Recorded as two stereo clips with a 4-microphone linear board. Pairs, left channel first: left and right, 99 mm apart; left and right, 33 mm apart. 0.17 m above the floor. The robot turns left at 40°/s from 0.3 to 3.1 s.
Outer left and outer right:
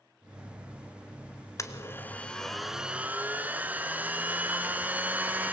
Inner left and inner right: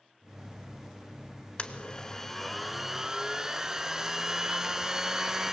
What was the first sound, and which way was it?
A blender, 40° left.